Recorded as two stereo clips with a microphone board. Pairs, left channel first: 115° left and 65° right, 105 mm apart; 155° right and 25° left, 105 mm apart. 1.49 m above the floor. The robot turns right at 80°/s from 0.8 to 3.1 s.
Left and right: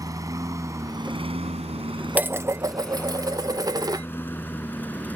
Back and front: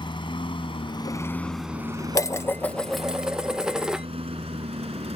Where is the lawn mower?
120° right; by 5.2 s 40° left.